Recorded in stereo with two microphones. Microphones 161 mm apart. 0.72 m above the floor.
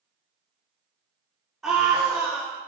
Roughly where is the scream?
Centre.